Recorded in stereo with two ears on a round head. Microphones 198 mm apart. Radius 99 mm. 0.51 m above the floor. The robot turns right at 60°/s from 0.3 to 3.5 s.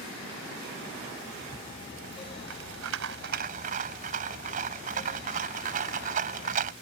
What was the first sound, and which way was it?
A rattle, 165° right.